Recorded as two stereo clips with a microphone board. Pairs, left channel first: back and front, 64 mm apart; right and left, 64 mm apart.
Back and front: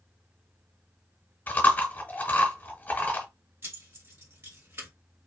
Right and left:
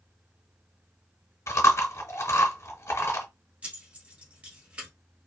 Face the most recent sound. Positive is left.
turn(degrees=35)